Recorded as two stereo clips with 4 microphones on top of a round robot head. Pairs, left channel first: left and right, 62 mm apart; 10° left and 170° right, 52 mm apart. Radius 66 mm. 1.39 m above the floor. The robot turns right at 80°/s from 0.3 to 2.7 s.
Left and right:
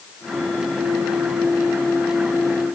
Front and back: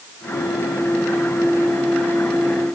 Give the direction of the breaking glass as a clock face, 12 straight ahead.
I don't hear breaking glass.